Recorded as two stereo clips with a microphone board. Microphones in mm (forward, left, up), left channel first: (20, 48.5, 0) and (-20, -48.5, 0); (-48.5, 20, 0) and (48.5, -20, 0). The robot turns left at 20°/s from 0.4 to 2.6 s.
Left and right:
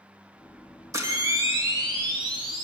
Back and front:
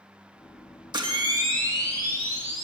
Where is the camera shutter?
55° right, 1.3 m; by 2.6 s 90° right, 1.3 m.